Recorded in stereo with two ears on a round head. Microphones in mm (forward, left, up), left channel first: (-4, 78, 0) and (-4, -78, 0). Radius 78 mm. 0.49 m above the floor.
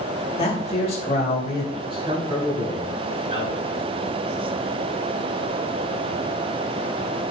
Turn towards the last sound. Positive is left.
turn(degrees=-35)  # may be behind; listen again after turning